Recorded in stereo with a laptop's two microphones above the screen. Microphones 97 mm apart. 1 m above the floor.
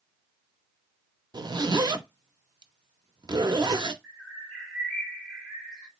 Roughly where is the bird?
Centre.